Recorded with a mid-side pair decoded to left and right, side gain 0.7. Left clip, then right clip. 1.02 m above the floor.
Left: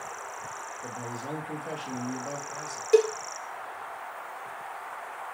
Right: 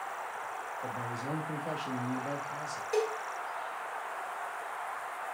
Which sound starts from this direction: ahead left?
A cowbell, at 2.9 s.